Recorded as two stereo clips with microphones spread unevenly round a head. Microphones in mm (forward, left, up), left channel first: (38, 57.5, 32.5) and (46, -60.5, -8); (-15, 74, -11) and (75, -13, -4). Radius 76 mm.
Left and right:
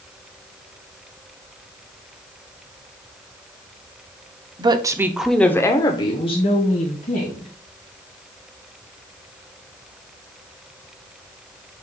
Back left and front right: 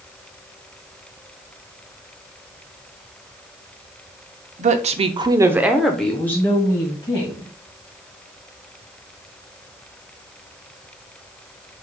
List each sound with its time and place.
4.6 s a woman speaking: 30° right, 0.8 m; by 7.5 s 75° left, 1.8 m